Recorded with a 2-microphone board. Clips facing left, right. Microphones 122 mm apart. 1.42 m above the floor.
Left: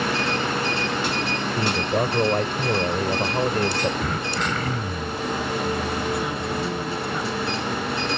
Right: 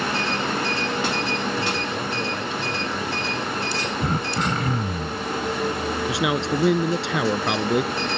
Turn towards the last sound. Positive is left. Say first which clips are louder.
# right 3 dB
turn(degrees=-85)